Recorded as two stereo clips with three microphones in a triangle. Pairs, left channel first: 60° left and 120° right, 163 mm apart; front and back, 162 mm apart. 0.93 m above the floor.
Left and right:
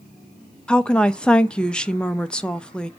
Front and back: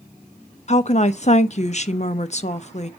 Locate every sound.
0.7 s a woman speaking: 20° right, 0.6 m